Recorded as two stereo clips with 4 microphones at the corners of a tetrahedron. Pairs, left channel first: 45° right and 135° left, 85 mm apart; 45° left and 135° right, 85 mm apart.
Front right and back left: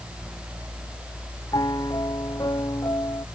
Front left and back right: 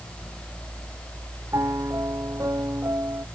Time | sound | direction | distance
1.5 | a piano | 85° right | ?